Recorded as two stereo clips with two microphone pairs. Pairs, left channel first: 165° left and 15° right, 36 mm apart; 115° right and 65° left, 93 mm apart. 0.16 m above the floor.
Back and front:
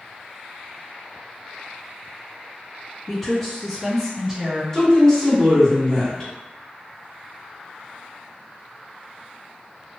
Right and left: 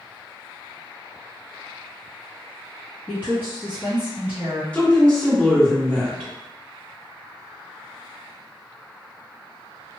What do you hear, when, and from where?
3.1 s a woman speaking: 105° left, 1.7 m; by 4.6 s 35° left, 1.7 m
4.7 s a woman speaking: 165° right, 1.7 m